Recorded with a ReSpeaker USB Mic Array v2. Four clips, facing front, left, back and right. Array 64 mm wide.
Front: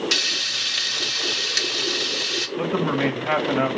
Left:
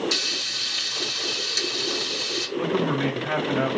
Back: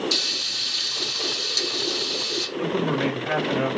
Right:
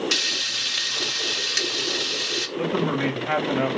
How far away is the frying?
About 0.9 m.